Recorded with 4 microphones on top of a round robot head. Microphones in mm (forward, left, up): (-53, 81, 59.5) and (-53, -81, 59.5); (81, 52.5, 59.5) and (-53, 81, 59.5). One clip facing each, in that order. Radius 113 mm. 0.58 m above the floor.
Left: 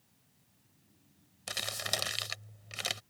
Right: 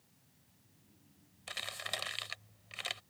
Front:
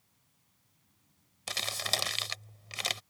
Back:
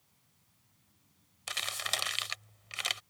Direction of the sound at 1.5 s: 40° left.